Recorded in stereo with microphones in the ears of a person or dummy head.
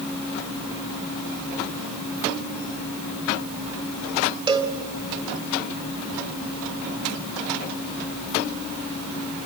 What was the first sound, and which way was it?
A cowbell, 20° right (ahead or behind).